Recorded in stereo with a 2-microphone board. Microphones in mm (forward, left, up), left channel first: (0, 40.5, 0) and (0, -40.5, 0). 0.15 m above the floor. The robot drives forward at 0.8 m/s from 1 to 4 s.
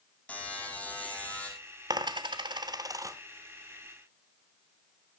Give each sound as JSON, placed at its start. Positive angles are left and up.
{"t": 0.3, "sound": "a buzzer", "side_deg": 15, "distance_m": 4.5}
{"t": 1.9, "sound": "a dropped coin", "side_deg": -60, "distance_m": 0.7}